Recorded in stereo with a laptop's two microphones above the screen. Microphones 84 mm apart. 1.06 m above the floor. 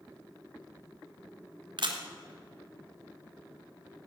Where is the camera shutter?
65° right (ahead or behind), 1.3 m.